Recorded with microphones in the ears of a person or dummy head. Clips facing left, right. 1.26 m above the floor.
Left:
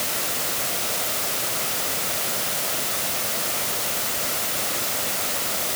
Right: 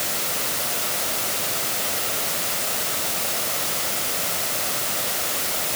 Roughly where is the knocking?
No knocking in this recording.